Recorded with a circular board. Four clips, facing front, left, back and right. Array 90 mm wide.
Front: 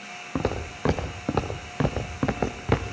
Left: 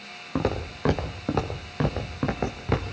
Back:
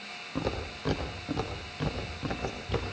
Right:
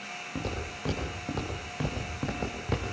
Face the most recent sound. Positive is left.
turn(degrees=20)